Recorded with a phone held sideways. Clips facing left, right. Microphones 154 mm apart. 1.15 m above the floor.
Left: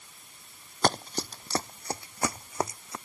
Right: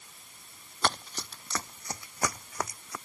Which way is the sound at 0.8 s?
40° left (ahead or behind).